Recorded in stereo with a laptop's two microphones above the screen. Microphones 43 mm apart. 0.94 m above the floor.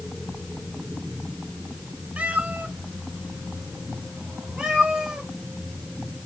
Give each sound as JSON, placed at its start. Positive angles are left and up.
{"t": 2.2, "sound": "a cat meowing", "side_deg": -35, "distance_m": 1.0}